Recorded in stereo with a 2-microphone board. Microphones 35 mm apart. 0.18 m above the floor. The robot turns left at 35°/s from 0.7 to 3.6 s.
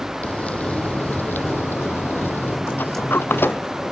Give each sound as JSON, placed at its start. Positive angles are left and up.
{"t": 0.2, "sound": "frying", "azimuth_deg": 140}
{"t": 2.7, "sound": "a sliding door", "side_deg": 65}